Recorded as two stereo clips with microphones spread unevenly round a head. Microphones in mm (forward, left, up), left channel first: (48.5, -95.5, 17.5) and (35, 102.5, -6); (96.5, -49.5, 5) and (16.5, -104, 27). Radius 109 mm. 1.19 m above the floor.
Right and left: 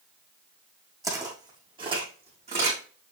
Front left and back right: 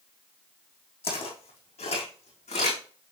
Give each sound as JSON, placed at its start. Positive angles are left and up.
{"t": 1.0, "sound": "footsteps", "azimuth_deg": 20, "distance_m": 4.5}